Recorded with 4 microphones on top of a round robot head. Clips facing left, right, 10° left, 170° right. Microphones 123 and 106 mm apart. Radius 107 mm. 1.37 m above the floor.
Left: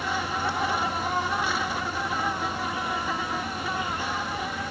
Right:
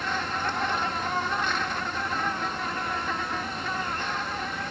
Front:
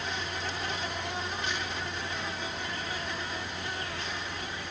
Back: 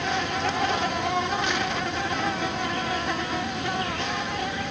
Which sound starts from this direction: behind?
An insect, at 0.0 s.